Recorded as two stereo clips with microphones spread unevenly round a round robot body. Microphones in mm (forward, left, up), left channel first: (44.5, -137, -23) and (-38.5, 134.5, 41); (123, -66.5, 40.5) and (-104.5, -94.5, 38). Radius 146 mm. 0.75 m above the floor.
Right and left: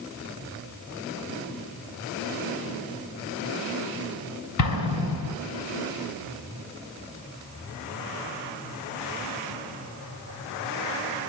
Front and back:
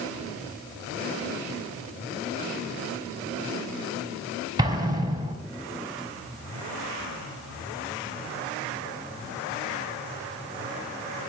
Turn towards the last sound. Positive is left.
turn(degrees=-100)